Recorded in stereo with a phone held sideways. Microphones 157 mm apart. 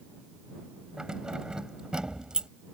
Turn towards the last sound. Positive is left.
turn(degrees=-5)  # may be behind; listen again after turning